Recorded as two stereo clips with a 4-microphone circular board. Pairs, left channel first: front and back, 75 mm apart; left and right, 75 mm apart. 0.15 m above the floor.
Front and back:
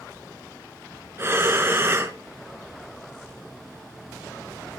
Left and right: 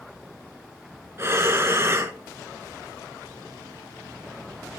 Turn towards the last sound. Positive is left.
turn(degrees=-135)